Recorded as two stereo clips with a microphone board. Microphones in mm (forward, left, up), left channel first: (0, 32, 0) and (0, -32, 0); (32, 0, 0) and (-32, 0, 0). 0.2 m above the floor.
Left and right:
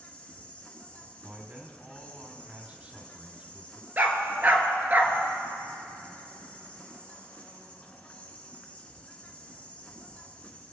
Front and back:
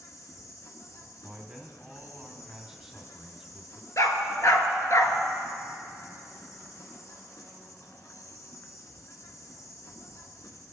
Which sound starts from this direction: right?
A man speaking, at 1.2 s.